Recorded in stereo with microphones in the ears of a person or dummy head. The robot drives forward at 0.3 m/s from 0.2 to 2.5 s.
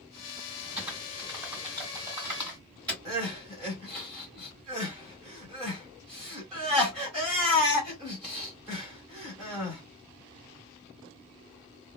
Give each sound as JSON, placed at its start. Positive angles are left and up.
{"t": 0.8, "sound": "typing on a keyboard", "side_deg": -25, "distance_m": 2.0}
{"t": 3.0, "sound": "crying", "side_deg": 0, "distance_m": 1.1}